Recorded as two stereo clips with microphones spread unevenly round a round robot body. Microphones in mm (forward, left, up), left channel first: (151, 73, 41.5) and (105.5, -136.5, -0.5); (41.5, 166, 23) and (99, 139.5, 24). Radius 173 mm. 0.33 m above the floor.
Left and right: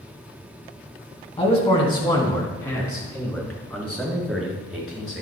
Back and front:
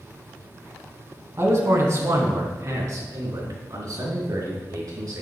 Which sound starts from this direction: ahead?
A man speaking, at 1.4 s.